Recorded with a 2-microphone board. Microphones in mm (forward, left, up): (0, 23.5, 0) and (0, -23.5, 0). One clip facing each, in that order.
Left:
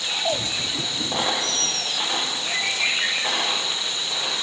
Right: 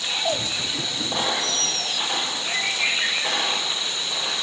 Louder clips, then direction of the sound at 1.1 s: Even; 20° left (ahead or behind).